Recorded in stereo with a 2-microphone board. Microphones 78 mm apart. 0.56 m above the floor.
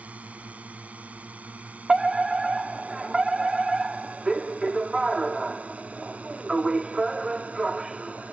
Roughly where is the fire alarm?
Centre.